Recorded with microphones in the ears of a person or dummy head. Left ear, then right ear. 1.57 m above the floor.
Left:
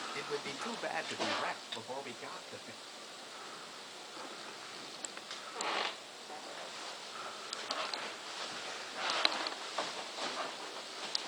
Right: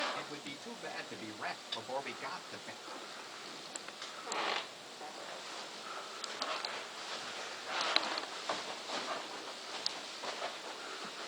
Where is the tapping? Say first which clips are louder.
Right 2 dB; 10° left (ahead or behind), 1.9 m.